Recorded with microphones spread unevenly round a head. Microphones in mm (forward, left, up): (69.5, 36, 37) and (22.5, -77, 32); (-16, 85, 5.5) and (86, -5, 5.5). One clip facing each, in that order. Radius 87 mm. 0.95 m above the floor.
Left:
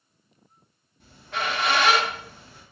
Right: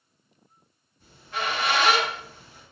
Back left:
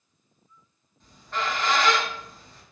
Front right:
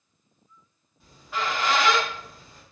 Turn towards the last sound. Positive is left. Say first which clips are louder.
# left 1 dB, even
turn(degrees=40)